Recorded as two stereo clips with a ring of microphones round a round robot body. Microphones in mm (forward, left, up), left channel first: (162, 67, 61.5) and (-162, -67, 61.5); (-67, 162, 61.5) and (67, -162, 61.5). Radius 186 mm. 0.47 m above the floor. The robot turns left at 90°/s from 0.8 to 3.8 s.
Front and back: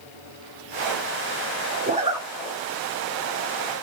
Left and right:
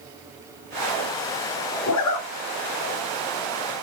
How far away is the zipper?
About 2.0 m.